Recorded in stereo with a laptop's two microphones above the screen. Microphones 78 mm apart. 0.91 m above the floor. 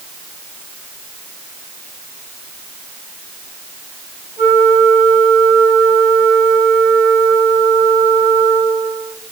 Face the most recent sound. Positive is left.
turn(degrees=25)  # may be behind; listen again after turning